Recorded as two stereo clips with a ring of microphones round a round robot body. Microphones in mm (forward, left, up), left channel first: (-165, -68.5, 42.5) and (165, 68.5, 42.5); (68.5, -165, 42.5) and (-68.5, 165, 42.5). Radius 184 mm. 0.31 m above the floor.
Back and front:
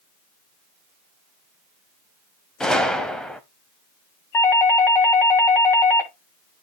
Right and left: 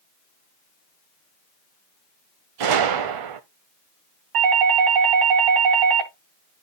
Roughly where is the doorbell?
Behind left.